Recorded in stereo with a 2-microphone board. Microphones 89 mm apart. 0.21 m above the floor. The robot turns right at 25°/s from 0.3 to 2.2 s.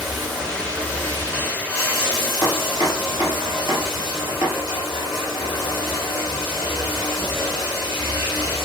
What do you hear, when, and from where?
0.0 s running water: straight ahead, 4 m; by 8.7 s 50° left, 4 m
2.4 s chopping: 60° left (ahead or behind), 3.5 m